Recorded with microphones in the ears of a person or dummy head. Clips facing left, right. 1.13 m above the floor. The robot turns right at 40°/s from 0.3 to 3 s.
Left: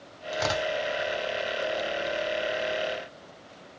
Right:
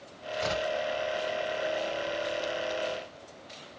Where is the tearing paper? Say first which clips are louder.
Left 2 dB; 80° left, 1.6 m; by 0.7 s 70° left (ahead or behind), 1.6 m.